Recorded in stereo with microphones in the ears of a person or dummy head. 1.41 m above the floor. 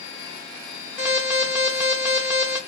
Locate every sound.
1.0 s an alarm: 5° right (ahead or behind), 0.8 m